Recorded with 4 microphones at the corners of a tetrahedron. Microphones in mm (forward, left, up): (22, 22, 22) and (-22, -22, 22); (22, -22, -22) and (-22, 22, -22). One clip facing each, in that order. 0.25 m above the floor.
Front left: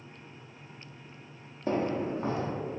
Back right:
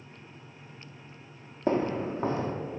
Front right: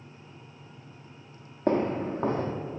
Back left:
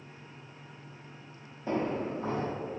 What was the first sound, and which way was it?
Footsteps, 75° right.